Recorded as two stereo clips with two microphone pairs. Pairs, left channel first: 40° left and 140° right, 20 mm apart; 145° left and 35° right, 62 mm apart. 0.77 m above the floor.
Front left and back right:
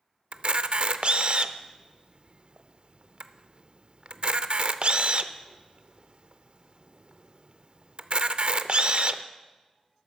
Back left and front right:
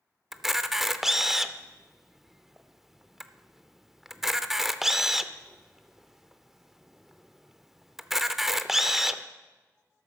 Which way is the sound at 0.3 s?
115° right.